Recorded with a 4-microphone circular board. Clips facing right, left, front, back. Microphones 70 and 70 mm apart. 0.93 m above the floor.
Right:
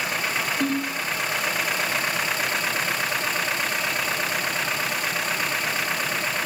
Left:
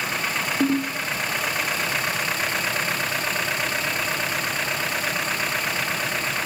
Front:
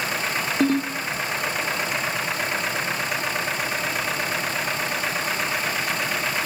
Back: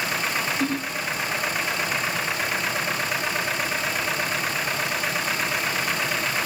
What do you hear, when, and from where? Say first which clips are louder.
0.6 s a ringtone: left 6 dB, front 5 dB; 30° left, 0.6 m